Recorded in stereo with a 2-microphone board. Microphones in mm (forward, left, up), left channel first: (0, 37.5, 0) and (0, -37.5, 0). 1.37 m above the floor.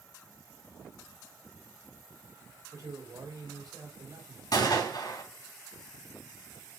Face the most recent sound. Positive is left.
turn(degrees=60)  # may be behind; listen again after turning